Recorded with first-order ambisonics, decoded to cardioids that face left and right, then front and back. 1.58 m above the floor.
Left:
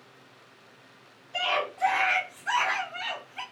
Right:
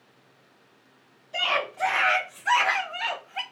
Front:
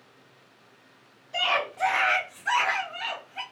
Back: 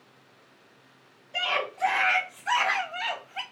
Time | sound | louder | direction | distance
1.3 | a scream | right 2 dB, front 2 dB | 35° right | 1.6 m